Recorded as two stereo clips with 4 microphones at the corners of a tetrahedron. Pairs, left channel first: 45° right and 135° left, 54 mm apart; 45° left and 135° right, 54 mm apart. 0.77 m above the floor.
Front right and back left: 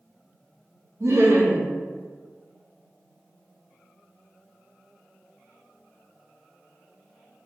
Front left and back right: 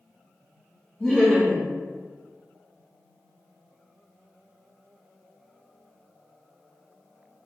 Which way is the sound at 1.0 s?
120° left.